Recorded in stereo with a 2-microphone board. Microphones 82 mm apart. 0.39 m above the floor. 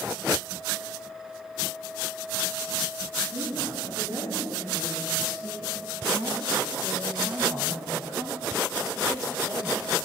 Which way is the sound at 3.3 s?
75° right (ahead or behind).